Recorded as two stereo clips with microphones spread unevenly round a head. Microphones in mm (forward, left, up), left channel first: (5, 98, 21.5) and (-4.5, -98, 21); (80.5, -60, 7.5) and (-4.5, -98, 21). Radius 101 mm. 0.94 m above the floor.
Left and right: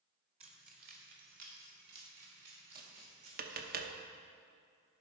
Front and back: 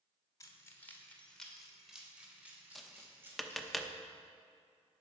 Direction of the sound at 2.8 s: 60° right.